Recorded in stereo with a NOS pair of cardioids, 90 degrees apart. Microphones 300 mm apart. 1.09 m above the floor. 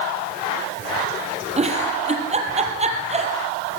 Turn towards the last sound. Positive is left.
turn(degrees=-20)